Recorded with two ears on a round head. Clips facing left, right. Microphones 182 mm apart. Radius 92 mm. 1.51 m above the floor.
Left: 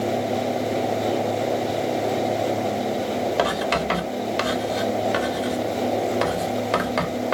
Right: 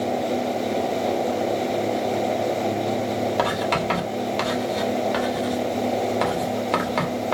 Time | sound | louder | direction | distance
3.4 | writing | left 1 dB | 5° left (ahead or behind) | 1.0 m